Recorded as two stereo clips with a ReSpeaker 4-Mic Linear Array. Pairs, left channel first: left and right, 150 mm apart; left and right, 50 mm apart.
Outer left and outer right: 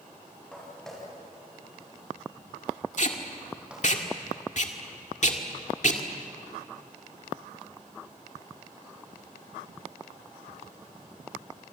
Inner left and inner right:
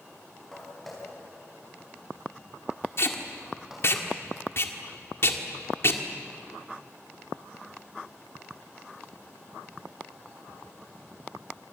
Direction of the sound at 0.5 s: 5° left (ahead or behind).